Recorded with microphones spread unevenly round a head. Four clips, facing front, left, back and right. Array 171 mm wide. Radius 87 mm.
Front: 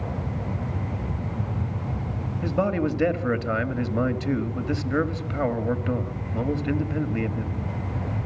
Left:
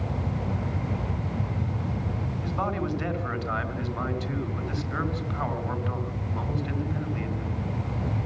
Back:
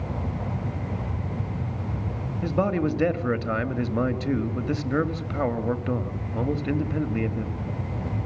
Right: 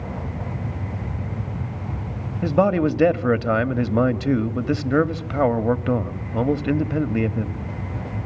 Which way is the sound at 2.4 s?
90° right.